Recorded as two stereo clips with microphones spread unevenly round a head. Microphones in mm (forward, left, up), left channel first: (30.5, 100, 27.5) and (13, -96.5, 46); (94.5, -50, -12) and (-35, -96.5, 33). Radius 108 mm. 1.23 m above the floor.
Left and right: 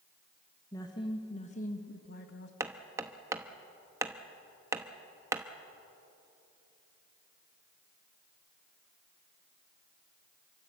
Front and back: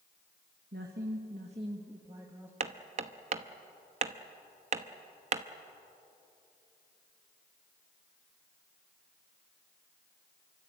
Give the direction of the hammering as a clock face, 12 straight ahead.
6 o'clock.